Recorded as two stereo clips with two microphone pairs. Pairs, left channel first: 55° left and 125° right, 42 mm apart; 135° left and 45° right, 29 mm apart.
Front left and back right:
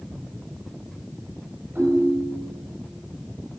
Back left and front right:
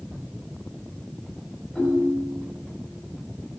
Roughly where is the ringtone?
Behind.